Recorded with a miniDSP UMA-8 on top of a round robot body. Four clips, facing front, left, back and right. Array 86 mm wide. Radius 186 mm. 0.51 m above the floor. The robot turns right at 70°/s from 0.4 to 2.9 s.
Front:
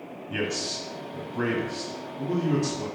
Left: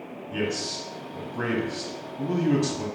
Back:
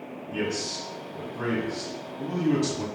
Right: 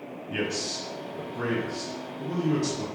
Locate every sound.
0.3 s a man speaking: 45° right, 1.1 m; by 2.9 s 130° left, 1.1 m